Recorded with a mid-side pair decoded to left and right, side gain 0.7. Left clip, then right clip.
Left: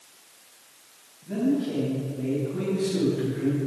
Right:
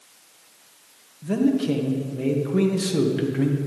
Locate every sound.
1.2 s a man speaking: 55° right, 2.5 m